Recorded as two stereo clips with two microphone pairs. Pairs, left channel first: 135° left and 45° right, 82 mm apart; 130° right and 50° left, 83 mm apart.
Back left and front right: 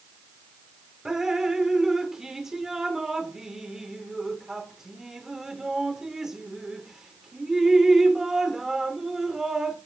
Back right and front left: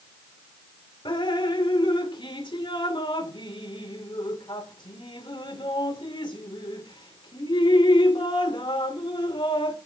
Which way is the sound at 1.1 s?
130° right.